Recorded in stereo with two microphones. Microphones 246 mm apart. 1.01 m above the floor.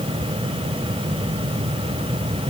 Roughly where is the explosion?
No explosion in this recording.